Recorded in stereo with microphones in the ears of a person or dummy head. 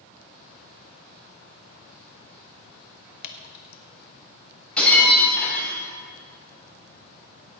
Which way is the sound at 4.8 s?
5° left (ahead or behind).